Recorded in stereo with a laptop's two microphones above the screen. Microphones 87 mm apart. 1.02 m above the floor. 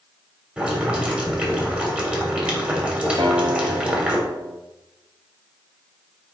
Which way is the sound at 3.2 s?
60° right (ahead or behind).